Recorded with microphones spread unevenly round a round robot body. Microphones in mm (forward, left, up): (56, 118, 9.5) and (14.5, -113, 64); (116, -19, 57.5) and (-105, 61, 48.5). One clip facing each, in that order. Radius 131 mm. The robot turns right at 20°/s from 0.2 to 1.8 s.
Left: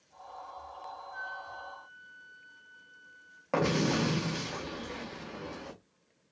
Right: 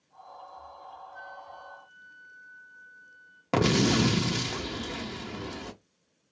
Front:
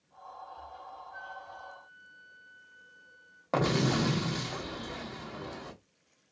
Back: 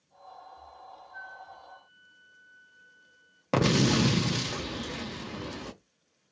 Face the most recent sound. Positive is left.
turn(degrees=-150)